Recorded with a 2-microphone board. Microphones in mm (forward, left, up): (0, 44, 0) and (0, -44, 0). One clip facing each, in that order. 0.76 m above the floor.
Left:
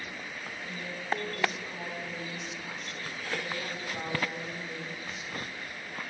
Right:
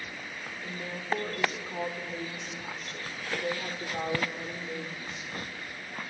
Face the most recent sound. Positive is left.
turn(degrees=-45)  # may be behind; listen again after turning